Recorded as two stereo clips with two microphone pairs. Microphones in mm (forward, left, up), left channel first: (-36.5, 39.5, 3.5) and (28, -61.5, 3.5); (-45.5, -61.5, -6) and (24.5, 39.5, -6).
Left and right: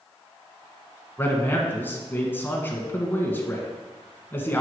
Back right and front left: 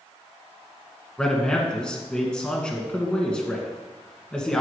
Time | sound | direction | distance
1.2 | a man speaking | 165° left | 1.4 m